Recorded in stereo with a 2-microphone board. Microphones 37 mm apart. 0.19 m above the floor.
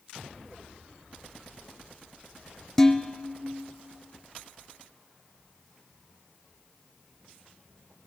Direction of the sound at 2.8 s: 15° left (ahead or behind).